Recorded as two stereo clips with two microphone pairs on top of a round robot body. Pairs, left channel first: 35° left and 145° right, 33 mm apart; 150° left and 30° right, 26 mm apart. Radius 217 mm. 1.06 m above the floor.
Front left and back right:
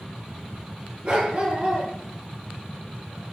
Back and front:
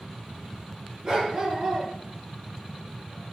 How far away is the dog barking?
About 4.5 m.